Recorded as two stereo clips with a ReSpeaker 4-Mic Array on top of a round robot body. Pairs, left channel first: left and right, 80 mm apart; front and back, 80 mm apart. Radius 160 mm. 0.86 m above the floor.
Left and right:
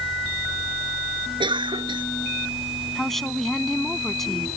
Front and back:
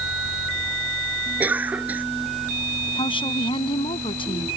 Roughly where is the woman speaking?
Ahead.